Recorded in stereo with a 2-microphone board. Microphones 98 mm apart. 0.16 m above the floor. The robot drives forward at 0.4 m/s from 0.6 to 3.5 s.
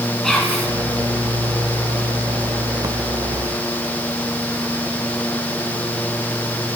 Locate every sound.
0.2 s whispering: 5° left (ahead or behind), 1.7 m